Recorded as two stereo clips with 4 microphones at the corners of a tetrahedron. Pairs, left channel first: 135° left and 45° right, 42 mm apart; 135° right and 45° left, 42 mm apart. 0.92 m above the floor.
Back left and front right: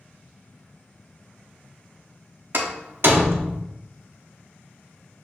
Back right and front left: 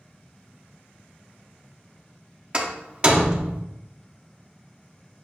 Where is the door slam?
20° right, 0.9 m.